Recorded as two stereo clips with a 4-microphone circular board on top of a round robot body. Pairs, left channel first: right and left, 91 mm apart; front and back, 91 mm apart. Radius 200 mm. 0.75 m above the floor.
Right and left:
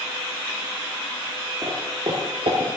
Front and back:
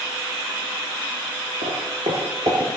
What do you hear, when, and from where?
1.6 s footsteps: 165° left, 1.0 m; by 2.7 s 120° left, 1.5 m